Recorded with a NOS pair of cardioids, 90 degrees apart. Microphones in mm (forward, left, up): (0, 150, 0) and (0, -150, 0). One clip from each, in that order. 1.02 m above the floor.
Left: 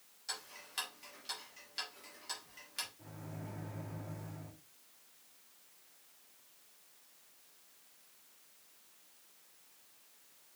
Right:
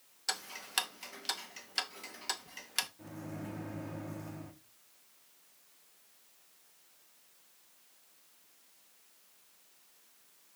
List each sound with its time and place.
0.3 s ticking: 65° right, 0.9 m
3.0 s a microwave: 45° right, 1.1 m